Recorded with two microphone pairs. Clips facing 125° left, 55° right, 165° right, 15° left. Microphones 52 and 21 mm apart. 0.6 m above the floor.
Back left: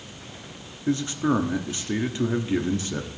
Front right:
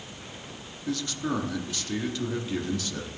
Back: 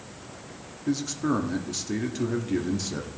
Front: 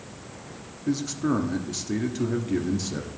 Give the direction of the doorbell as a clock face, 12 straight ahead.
I don't hear a doorbell.